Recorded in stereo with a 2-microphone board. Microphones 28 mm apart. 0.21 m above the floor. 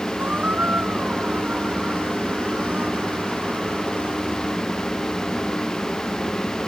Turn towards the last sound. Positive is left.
turn(degrees=-80)